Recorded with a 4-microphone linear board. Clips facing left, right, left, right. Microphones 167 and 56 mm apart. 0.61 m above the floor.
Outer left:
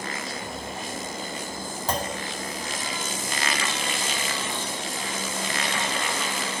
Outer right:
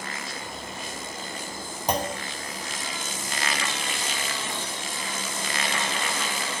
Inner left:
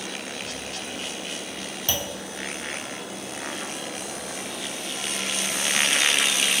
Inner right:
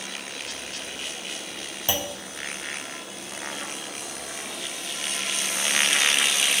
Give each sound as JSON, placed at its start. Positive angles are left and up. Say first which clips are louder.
{"t": 1.9, "sound": "a clunk", "louder": "outer right 2 dB, inner right 2 dB", "side_deg": -20, "distance_m": 1.3}